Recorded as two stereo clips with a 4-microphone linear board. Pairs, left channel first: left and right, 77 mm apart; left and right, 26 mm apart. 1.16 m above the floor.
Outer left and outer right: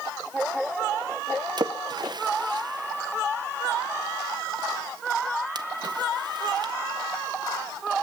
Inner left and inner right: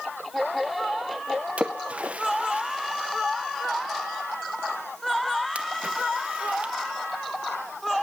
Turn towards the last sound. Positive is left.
turn(degrees=-60)  # may be behind; listen again after turning